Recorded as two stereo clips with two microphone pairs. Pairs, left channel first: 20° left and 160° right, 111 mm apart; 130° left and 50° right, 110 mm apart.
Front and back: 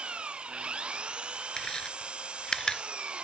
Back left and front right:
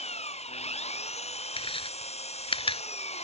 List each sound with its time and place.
0.0 s an engine running: 115° left
1.6 s chewing: 100° left